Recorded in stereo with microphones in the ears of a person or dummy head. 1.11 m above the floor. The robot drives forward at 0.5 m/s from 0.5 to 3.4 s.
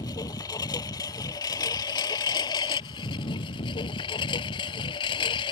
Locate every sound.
0.0 s a lawn mower: 20° left (ahead or behind); by 5.5 s 25° left (ahead or behind)